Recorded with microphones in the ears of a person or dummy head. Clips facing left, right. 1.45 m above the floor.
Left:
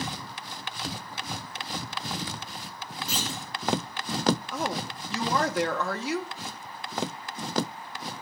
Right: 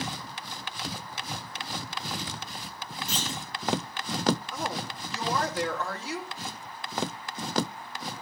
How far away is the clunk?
About 4 m.